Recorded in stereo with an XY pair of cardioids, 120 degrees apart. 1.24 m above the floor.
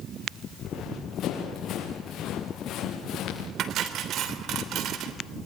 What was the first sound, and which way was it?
Running footsteps, 60° left.